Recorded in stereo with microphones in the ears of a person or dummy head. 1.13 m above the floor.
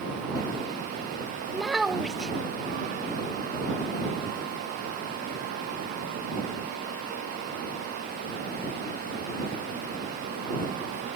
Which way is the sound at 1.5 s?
5° right (ahead or behind).